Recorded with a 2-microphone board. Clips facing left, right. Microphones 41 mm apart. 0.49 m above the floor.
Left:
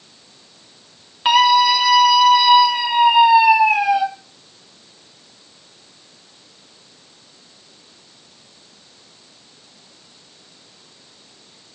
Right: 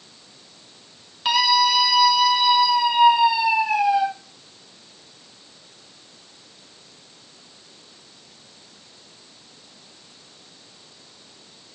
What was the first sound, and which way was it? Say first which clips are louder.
A scream: left 6 dB; 30° left (ahead or behind).